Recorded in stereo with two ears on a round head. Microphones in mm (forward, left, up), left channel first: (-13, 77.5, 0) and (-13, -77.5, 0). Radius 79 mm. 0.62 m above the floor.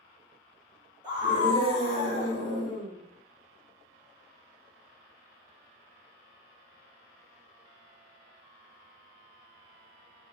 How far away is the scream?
About 1.3 m.